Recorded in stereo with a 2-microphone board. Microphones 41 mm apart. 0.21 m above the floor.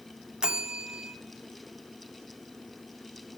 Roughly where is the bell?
Right.